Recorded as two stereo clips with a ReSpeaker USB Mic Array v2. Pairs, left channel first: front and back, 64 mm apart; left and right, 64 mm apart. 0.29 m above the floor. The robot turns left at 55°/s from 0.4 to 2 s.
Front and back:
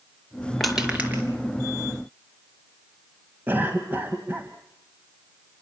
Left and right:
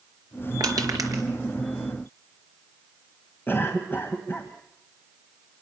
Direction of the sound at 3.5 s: 135° left.